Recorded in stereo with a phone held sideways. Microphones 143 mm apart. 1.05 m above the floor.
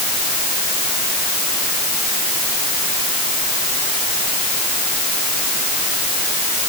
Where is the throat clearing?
No throat clearing in this recording.